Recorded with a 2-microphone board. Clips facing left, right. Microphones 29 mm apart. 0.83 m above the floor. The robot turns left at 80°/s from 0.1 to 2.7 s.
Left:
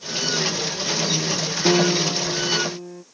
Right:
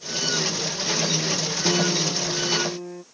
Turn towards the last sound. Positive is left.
turn(degrees=-20)